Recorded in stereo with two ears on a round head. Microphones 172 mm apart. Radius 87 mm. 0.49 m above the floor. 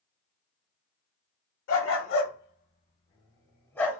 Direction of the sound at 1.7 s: 90° left.